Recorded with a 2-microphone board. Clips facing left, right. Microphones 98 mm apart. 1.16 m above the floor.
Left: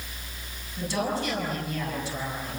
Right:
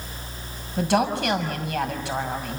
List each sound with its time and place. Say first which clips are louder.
0.8 s a woman speaking: right 7 dB; 70° right (ahead or behind), 6 m